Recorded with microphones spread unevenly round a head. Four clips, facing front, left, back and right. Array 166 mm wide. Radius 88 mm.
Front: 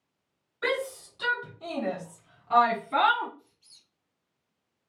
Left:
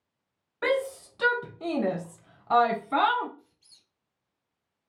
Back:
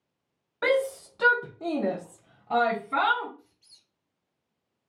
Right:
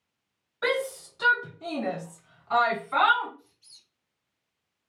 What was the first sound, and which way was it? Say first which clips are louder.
A shout: left 1 dB, back 5 dB; 160° left.